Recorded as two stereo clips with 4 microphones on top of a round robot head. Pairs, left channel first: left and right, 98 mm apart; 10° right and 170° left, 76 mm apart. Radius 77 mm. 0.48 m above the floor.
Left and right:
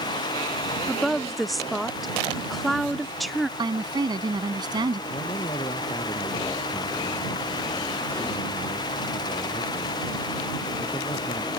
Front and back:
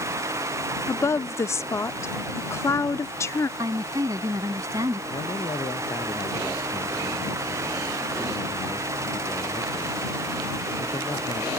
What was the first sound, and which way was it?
A woman speaking, straight ahead.